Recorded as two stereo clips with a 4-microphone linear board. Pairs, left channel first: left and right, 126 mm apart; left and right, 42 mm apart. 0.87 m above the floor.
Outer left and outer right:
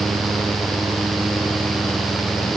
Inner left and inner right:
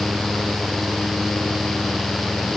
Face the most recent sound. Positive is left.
No sound to turn to.